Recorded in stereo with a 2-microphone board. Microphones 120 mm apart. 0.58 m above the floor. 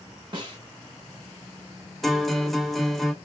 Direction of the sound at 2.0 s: Centre (ahead or behind).